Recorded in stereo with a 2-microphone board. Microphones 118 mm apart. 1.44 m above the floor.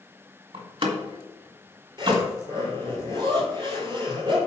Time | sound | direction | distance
0.5 | a door slam | 45° right (ahead or behind) | 1.8 m
2.0 | a zipper | 40° right (ahead or behind) | 4 m